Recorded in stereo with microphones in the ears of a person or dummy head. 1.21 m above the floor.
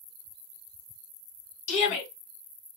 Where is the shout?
40° left (ahead or behind), 1.8 m.